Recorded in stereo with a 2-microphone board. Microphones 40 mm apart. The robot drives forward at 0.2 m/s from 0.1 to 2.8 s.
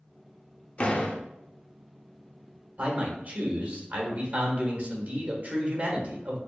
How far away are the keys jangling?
No keys jangling in this recording.